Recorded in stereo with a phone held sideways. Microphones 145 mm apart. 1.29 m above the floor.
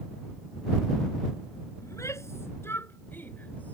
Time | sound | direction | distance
1.8 | a shout | 20° left (ahead or behind) | ?